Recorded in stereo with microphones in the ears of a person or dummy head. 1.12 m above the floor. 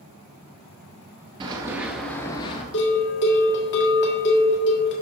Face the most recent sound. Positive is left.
turn(degrees=60)  # may be behind; listen again after turning